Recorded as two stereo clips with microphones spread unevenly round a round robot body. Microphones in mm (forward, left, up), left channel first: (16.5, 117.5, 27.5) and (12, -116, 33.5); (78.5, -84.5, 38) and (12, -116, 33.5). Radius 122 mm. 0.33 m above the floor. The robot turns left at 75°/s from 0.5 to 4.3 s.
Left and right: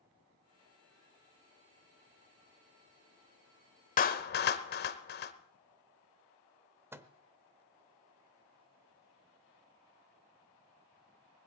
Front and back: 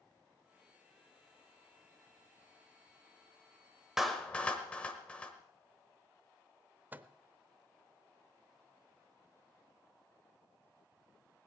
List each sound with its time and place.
4.0 s a clap: 125° left, 0.9 m; by 5.3 s 100° left, 0.9 m
6.9 s a microwave: 160° right, 0.7 m